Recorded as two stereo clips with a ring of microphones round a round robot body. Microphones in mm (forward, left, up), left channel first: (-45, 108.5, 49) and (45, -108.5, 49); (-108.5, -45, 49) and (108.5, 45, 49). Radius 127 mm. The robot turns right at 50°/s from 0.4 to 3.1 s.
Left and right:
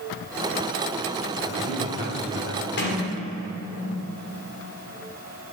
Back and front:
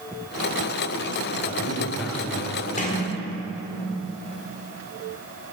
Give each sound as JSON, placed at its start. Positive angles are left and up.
{"t": 1.4, "sound": "a man speaking", "azimuth_deg": 85, "distance_m": 3.5}
{"t": 2.8, "sound": "a sliding door", "azimuth_deg": 145, "distance_m": 2.0}